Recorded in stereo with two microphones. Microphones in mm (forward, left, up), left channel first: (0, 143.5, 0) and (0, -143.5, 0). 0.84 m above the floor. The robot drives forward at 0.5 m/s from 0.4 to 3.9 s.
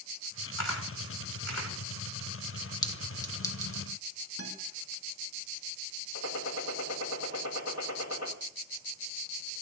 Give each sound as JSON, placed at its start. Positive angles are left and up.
{"t": 0.6, "sound": "a camera shutter", "side_deg": 80, "distance_m": 4.5}
{"t": 2.8, "sound": "a clink", "side_deg": 15, "distance_m": 1.6}
{"t": 4.4, "sound": "a guitar", "side_deg": -55, "distance_m": 6.5}
{"t": 6.2, "sound": "a gunshot", "side_deg": 60, "distance_m": 3.0}